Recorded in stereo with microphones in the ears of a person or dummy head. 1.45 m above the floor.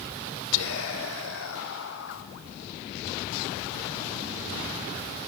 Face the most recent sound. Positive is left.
turn(degrees=80)